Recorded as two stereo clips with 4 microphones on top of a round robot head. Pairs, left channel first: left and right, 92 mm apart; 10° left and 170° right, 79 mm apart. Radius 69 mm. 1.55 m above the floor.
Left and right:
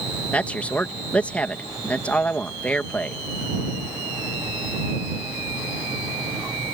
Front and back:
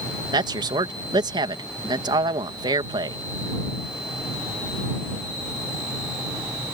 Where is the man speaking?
170° left.